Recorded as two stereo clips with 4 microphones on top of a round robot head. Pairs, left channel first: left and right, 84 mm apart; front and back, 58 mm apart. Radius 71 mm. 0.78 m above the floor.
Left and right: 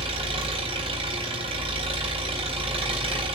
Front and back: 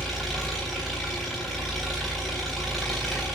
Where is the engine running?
90° right, 3.5 m.